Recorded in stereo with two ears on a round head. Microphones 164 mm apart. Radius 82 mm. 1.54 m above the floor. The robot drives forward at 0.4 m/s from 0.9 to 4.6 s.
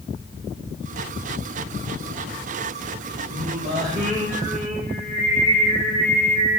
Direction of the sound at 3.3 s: 40° right (ahead or behind).